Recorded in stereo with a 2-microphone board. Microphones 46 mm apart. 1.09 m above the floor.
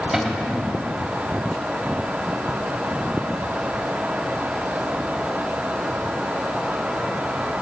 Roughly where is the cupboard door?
Centre.